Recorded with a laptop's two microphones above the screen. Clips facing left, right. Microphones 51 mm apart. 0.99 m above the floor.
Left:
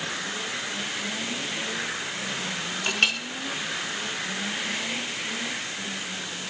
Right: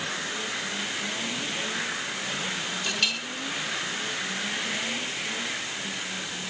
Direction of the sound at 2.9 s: 45° left (ahead or behind).